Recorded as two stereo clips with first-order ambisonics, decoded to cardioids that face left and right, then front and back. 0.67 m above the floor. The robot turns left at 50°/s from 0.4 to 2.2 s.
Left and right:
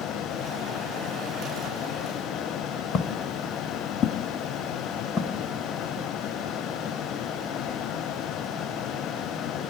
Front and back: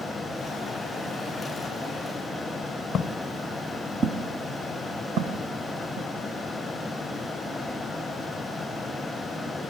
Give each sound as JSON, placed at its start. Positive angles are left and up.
{"t": 2.9, "sound": "footsteps", "azimuth_deg": 55, "distance_m": 0.9}